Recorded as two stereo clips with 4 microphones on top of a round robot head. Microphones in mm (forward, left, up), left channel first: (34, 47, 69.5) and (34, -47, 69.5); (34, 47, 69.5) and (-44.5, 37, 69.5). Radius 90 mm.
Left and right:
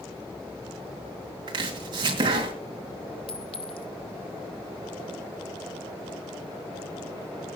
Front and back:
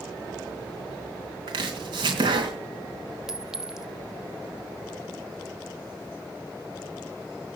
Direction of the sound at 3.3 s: 110° left.